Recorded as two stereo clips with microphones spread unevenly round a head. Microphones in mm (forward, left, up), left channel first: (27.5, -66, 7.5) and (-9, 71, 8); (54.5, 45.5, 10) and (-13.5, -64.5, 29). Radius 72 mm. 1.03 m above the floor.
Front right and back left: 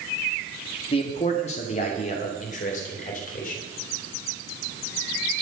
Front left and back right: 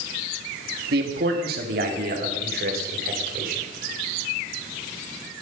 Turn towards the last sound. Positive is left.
turn(degrees=-110)